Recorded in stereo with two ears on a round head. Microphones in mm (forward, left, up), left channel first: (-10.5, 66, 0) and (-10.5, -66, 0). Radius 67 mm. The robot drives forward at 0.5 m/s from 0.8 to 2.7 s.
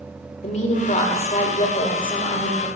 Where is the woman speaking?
50° left (ahead or behind), 1.4 m; by 2.7 s 30° left (ahead or behind), 2 m.